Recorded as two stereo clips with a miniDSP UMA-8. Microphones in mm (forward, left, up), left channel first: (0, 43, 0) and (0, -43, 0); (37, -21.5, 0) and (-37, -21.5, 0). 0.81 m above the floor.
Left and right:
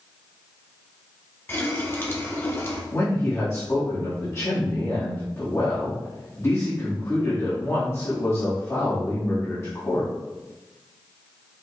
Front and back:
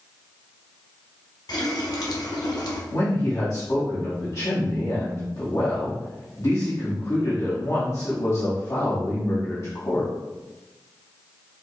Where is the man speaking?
40° left, 1.5 m.